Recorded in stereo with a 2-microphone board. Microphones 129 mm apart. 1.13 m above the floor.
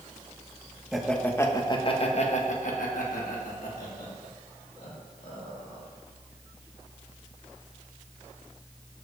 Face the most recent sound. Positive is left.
turn(degrees=85)